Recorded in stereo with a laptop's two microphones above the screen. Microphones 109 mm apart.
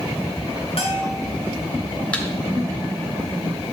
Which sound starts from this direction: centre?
A thud, at 2.1 s.